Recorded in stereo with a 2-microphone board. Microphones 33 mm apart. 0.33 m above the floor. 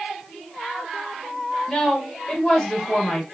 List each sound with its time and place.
1.7 s a woman speaking: 25° left (ahead or behind), 1.3 m